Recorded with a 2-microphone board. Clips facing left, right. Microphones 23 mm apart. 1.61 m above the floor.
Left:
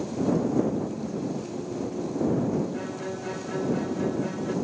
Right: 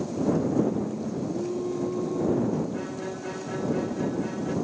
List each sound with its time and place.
0.6 s singing: 65° right (ahead or behind)
2.7 s a violin: centre (ahead or behind)